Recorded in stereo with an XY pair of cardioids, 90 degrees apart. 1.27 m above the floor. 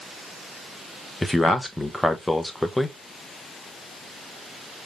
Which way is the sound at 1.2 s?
15° left.